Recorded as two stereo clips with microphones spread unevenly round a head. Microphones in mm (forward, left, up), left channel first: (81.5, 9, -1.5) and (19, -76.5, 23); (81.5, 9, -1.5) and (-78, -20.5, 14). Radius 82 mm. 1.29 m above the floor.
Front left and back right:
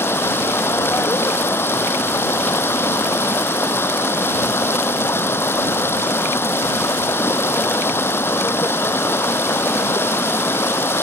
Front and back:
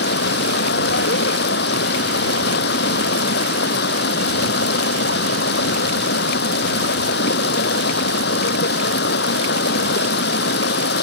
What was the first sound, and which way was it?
Running water, 15° right.